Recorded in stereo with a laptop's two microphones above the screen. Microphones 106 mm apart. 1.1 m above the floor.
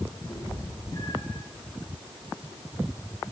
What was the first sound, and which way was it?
A cat meowing, 40° left (ahead or behind).